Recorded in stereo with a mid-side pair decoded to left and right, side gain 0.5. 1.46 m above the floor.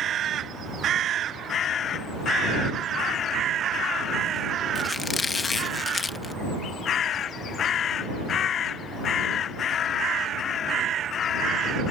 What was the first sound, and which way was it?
A squeak, 30° left.